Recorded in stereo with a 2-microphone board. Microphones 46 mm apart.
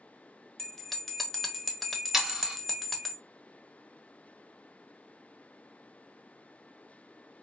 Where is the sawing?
10° right (ahead or behind), 0.8 m.